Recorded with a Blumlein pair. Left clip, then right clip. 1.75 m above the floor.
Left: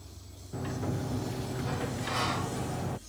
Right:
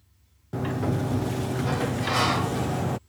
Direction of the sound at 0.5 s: 65° right.